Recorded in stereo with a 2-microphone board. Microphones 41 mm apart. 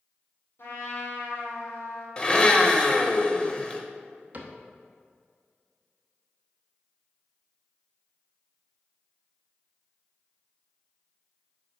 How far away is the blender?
About 0.7 m.